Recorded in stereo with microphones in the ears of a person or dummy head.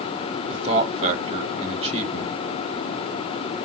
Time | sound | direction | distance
0.5 | a man speaking | 35° right (ahead or behind) | 1.1 m